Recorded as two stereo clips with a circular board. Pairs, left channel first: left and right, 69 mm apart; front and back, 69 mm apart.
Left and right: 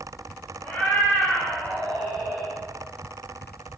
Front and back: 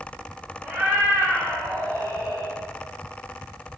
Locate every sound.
0.6 s a cat meowing: 145° left, 1.6 m; by 2.5 s straight behind, 3 m